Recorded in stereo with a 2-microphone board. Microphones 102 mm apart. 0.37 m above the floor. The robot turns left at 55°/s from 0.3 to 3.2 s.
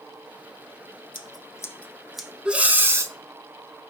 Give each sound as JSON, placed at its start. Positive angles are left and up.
{"t": 1.1, "sound": "scissors", "side_deg": 55, "distance_m": 0.9}
{"t": 2.5, "sound": "breathing", "azimuth_deg": -15, "distance_m": 0.8}